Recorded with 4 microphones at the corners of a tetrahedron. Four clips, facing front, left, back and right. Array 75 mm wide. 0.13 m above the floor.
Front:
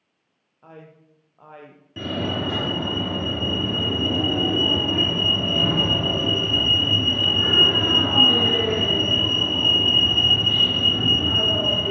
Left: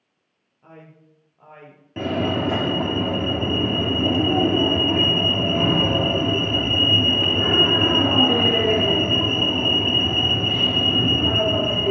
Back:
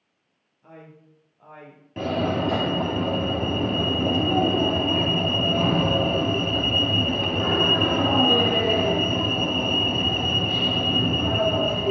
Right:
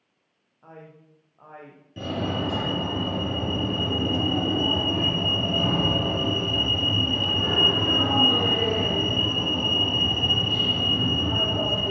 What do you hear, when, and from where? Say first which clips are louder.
0.6 s a man speaking: even, front 1 dB; 15° right, 5 m
2.0 s a fire alarm: left 5 dB, back 2 dB; 100° left, 3.5 m